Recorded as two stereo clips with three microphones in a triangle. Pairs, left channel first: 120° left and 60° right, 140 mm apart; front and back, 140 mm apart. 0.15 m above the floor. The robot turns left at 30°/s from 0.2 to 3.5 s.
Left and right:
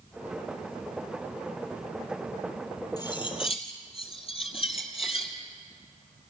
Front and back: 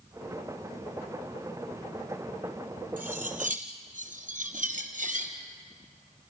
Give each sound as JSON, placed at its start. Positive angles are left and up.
{"t": 3.0, "sound": "cutlery clinking", "azimuth_deg": 180, "distance_m": 2.5}